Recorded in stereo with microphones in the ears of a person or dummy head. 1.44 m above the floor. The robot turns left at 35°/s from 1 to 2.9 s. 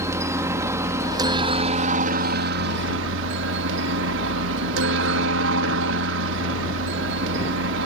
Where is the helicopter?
15° right; by 7.9 s 85° right.